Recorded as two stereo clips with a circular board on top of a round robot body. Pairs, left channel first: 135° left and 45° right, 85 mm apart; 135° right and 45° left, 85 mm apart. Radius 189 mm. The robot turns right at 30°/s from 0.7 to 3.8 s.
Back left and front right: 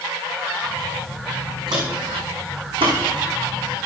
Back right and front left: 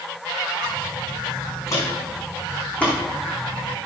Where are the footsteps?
85° right, 3.5 m; by 3.0 s 60° right, 3.5 m.